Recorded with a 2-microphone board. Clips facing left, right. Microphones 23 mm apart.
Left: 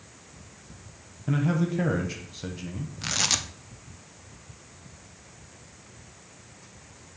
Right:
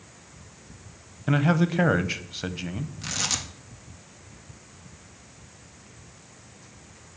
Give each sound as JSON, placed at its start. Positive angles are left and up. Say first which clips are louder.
{"t": 1.3, "sound": "a man speaking", "louder": "right 4 dB", "side_deg": -40, "distance_m": 0.6}
{"t": 3.0, "sound": "tearing paper", "louder": "left 3 dB", "side_deg": 25, "distance_m": 0.7}